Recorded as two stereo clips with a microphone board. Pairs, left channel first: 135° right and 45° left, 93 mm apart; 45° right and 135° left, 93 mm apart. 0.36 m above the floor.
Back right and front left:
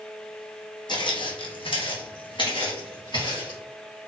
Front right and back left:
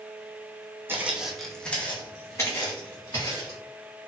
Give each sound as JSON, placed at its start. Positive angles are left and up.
{"t": 0.9, "sound": "footsteps", "azimuth_deg": -160, "distance_m": 0.7}